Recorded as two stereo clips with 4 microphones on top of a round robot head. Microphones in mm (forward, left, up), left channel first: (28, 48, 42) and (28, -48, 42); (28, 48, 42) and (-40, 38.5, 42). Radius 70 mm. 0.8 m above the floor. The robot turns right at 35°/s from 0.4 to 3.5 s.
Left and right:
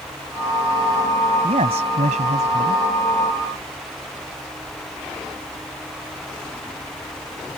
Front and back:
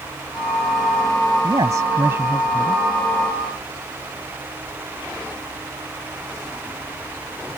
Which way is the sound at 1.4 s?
125° right.